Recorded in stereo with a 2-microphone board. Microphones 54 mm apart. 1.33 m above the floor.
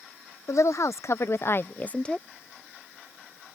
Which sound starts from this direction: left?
A woman speaking, at 0.5 s.